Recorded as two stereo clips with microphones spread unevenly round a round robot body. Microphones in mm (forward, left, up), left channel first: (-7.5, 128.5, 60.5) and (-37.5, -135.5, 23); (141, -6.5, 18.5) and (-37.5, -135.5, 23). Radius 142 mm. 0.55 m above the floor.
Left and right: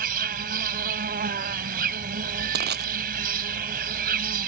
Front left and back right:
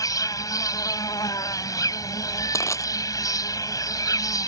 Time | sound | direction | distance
0.0 | an insect | 40° right | ?
2.5 | crushing | 40° right | ?